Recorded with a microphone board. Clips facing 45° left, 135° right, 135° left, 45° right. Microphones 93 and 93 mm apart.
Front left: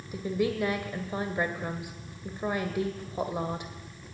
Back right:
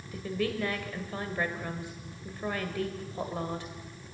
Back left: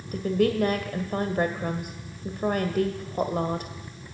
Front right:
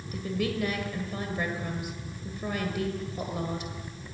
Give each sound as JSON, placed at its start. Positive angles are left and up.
{"t": 0.1, "sound": "a woman speaking", "azimuth_deg": 115, "distance_m": 1.7}